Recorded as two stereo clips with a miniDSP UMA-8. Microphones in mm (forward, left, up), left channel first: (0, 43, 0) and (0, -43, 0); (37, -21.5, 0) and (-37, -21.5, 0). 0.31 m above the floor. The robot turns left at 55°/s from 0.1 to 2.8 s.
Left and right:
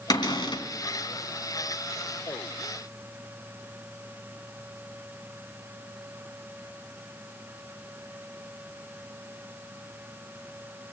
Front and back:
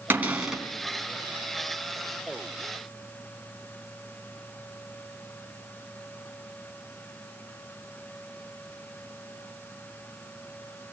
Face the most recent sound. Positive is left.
turn(degrees=-30)